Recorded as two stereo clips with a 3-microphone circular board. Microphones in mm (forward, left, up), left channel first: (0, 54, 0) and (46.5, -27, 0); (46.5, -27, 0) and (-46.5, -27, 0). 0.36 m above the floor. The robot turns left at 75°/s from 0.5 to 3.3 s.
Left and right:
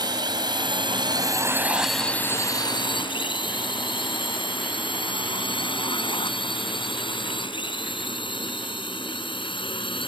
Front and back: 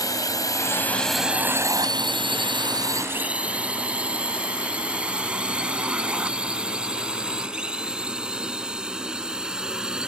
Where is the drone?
40° right; by 10.1 s 100° left.